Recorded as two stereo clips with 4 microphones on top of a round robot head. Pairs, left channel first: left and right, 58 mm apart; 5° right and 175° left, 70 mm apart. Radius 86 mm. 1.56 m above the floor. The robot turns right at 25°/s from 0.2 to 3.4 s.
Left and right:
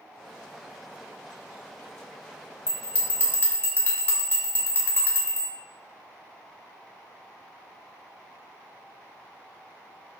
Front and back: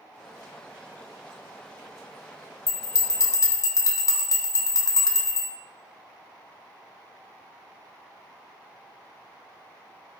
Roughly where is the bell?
Ahead.